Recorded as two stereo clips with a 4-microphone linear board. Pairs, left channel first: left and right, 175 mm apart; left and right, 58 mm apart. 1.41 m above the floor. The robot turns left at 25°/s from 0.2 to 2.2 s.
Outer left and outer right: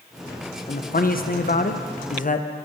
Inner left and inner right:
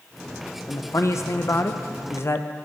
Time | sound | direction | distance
0.7 | a man speaking | 105° left | 0.5 m